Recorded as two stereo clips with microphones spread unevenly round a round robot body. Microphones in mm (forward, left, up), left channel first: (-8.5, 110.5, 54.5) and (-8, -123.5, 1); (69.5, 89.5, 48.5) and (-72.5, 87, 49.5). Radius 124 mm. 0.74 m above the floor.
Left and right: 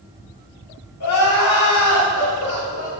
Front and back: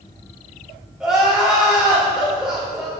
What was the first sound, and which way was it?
Crying, 95° left.